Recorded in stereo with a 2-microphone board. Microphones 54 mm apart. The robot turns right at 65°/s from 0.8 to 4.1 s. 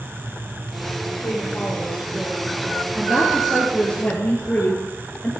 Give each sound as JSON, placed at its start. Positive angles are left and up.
{"t": 1.2, "sound": "a woman speaking", "azimuth_deg": 120, "distance_m": 8.0}
{"t": 3.0, "sound": "a woman speaking", "azimuth_deg": -40, "distance_m": 3.0}